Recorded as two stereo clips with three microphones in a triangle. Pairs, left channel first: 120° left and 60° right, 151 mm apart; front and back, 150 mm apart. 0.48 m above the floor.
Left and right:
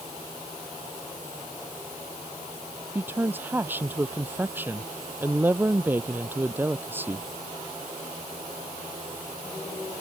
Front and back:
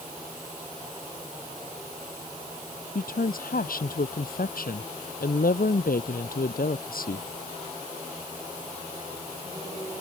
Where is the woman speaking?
15° left.